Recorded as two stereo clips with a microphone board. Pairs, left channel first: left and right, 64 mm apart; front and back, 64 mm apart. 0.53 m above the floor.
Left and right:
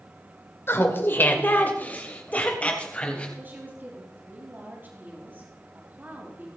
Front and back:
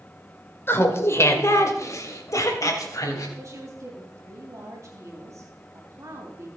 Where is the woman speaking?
150° right, 3 m.